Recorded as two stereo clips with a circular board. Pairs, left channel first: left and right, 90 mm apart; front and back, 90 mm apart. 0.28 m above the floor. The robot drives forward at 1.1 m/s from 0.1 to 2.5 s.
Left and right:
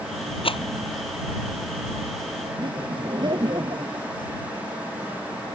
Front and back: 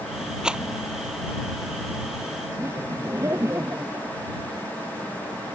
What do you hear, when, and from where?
0.4 s a rattle: 100° left
2.6 s laughter: 120° right